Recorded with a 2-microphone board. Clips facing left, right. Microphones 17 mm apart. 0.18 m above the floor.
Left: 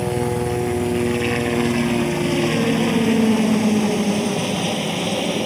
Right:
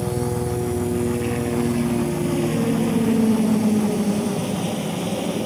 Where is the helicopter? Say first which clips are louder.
Left 3 dB; 45° left (ahead or behind); by 5.5 s 35° left (ahead or behind).